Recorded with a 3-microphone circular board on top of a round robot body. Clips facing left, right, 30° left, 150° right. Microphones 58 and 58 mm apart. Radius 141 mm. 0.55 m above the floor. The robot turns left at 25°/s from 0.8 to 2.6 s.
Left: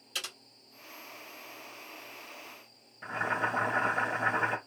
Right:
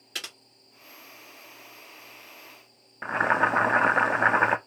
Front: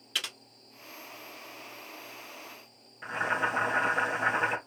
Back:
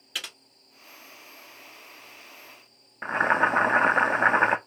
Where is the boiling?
110° right, 0.6 m.